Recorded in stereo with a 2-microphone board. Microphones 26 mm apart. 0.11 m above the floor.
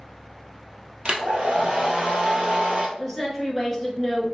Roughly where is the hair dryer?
Right.